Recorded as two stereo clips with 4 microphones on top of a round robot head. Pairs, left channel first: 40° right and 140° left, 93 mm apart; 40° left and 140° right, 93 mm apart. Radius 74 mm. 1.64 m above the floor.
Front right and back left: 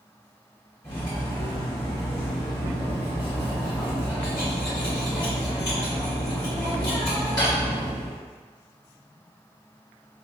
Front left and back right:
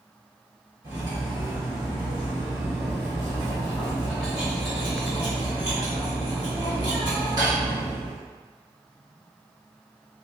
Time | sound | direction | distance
0.8 | cutlery clinking | 90° right | 1.4 m